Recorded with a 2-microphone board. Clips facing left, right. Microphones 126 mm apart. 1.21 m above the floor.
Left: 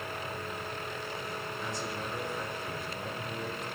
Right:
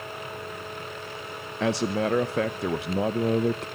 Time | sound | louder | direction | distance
1.6 | a man speaking | right 17 dB | 75° right (ahead or behind) | 0.6 m